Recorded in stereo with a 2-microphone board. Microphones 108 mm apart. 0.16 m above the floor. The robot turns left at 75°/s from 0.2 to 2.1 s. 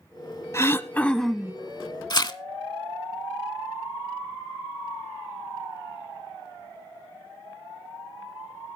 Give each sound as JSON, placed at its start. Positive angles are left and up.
{"t": 0.5, "sound": "throat clearing", "azimuth_deg": 60, "distance_m": 0.5}
{"t": 2.1, "sound": "tearing paper", "side_deg": 40, "distance_m": 0.6}